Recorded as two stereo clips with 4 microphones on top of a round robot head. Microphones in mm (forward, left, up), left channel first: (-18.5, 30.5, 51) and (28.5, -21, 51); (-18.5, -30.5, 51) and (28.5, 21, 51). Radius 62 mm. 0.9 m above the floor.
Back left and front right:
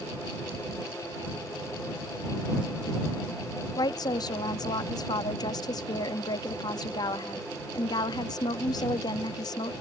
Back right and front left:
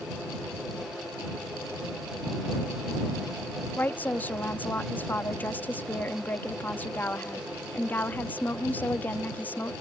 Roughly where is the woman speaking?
Behind.